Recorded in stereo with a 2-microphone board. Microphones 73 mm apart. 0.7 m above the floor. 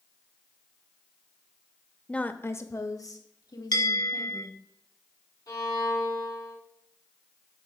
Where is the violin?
65° left (ahead or behind), 4 m.